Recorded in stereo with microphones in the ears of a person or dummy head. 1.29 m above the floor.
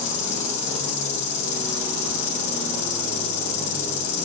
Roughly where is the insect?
Left.